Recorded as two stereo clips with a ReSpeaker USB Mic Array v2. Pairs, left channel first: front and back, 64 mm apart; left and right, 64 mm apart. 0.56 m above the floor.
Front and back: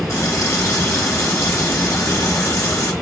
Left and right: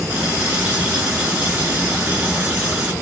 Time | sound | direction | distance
0.1 | a running tap | 25° right | 1.1 m